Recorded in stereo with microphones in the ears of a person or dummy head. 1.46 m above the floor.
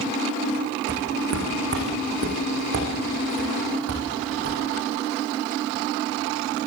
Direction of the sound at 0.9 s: 60° right (ahead or behind).